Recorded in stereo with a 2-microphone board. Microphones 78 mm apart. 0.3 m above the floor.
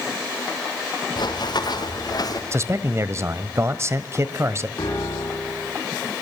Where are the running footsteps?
70° left (ahead or behind), 4.5 m; by 2.4 s 55° left (ahead or behind), 4.5 m.